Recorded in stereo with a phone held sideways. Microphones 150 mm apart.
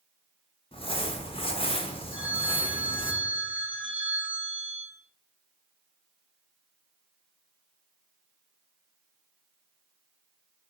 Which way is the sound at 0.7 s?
40° left (ahead or behind).